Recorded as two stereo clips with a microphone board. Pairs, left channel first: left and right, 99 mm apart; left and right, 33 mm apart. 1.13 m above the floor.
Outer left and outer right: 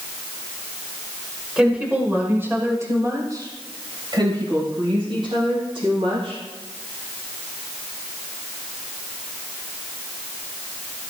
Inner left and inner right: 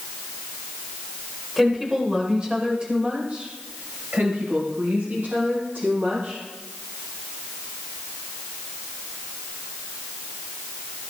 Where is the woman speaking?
10° right (ahead or behind), 4 m; by 6.4 s 70° right (ahead or behind), 7 m.